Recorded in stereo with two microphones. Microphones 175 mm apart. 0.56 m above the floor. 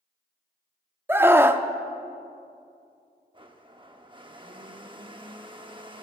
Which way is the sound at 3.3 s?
30° right (ahead or behind).